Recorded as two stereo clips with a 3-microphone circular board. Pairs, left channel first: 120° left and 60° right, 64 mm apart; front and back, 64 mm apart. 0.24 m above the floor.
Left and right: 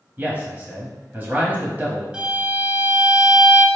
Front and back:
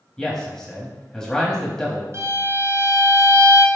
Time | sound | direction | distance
0.2 | a man speaking | 70° right | 1.0 m
2.1 | a violin | 130° right | 0.7 m